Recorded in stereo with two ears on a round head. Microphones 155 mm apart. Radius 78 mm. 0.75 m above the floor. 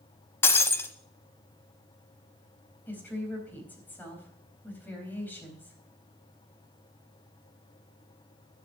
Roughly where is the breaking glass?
Centre.